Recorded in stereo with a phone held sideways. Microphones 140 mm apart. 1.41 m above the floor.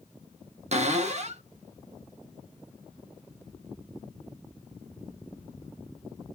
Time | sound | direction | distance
0.7 | a cupboard door | 50° right (ahead or behind) | 0.6 m